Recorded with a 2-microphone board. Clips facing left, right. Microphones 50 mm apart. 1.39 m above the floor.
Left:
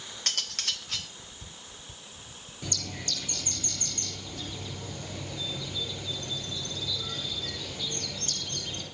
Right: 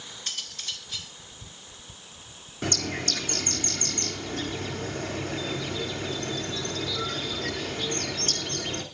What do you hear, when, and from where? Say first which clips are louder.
0.3 s cutlery clinking: left 3 dB; 70° left (ahead or behind), 1.7 m
2.6 s a bird: right 8 dB; 80° right, 3 m